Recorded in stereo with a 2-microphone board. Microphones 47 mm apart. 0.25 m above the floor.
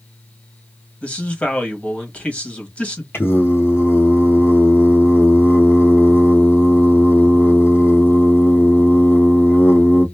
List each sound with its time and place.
1.0 s a man speaking: 30° left (ahead or behind), 1.1 m
3.1 s singing: 55° left (ahead or behind), 1.1 m